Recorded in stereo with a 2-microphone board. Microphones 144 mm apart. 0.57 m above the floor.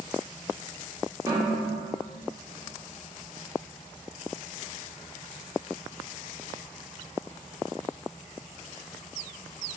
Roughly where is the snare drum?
Right.